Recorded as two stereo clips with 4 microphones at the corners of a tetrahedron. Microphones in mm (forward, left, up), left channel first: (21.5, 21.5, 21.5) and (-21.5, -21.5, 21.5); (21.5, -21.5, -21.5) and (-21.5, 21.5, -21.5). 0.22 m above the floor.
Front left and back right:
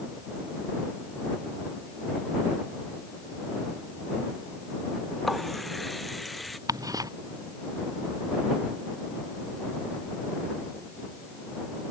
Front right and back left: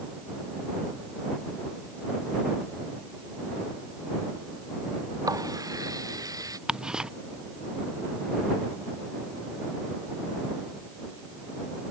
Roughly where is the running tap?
Behind left.